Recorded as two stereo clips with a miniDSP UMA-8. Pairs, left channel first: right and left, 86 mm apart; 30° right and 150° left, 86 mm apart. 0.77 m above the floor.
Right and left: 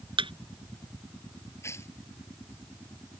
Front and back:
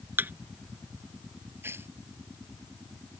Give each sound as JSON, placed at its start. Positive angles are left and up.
{"t": 0.2, "sound": "a thud", "azimuth_deg": 85}
{"t": 1.6, "sound": "tearing paper", "azimuth_deg": -145}